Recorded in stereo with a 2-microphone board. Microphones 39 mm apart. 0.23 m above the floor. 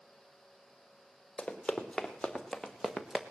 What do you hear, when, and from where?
1.4 s running footsteps: 25° left (ahead or behind), 3.5 m; by 3.2 s 15° right (ahead or behind), 1.6 m